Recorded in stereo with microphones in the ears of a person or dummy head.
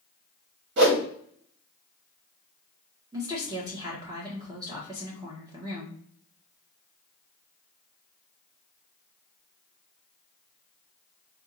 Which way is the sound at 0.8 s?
65° right (ahead or behind).